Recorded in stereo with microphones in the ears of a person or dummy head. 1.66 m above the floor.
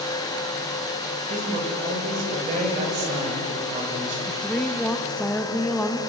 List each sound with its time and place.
0.0 s a fan: 15° left (ahead or behind), 1.9 m
1.3 s a man speaking: 40° right (ahead or behind), 7 m
4.3 s a woman speaking: 10° left (ahead or behind), 1.8 m